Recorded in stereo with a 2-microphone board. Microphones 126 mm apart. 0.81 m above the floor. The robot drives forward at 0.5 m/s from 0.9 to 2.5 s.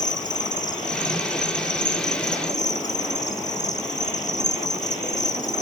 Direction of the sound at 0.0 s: 80° left.